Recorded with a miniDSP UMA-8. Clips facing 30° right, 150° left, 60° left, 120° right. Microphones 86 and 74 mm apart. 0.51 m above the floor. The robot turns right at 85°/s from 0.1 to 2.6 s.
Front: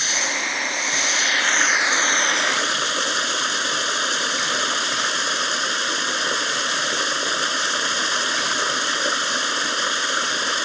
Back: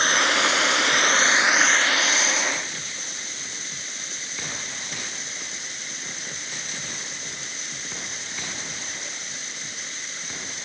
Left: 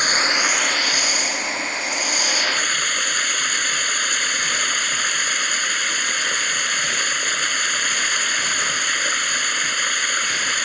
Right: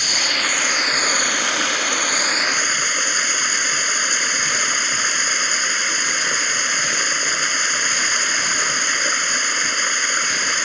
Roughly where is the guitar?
No guitar in this recording.